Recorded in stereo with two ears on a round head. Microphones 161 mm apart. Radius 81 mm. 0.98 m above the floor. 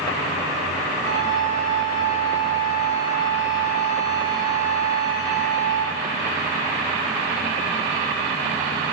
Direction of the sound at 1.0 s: 40° left (ahead or behind).